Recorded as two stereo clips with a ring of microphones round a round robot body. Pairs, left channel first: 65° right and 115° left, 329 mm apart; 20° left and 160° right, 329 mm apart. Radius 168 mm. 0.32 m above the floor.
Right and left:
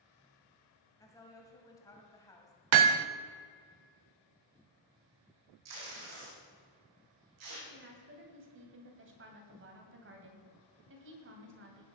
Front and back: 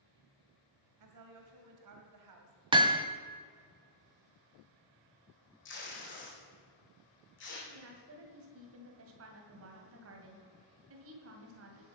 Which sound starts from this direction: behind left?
Hammering, at 2.7 s.